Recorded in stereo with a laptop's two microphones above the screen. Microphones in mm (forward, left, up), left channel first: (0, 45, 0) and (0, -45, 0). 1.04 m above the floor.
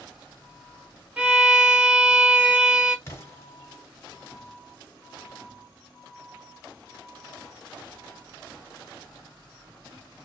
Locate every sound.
1.2 s a violin: 15° right (ahead or behind), 0.7 m
3.1 s an explosion: 30° left (ahead or behind), 1.4 m